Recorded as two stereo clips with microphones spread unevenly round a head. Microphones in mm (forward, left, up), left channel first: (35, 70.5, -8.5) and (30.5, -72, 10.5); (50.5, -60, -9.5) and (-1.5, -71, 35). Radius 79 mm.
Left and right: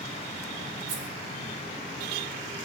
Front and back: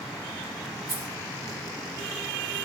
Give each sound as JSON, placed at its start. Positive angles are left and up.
{"t": 0.9, "sound": "keys jangling", "azimuth_deg": -120, "distance_m": 3.0}